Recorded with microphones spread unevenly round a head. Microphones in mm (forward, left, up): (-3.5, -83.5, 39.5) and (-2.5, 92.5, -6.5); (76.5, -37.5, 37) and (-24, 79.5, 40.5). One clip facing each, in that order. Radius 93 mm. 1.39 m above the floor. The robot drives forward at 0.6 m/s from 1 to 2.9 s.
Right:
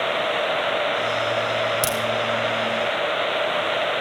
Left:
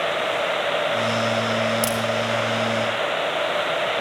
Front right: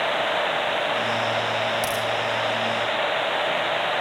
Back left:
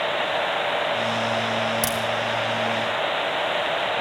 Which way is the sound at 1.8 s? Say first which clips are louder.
Left 1 dB, even; 165° right.